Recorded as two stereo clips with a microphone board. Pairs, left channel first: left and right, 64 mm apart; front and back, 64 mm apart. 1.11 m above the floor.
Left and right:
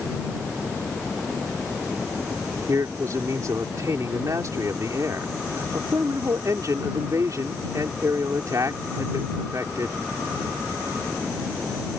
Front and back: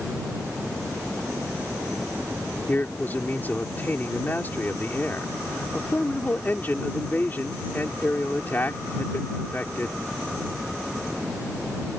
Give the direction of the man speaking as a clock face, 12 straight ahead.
2 o'clock.